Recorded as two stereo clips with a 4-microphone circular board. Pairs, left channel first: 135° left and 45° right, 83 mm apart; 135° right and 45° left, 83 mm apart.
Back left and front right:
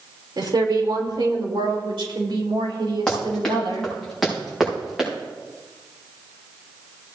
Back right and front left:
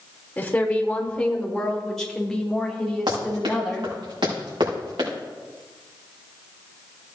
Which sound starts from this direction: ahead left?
Running footsteps, at 3.1 s.